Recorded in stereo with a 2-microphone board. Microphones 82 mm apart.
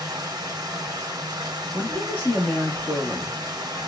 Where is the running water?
55° right (ahead or behind), 0.8 m.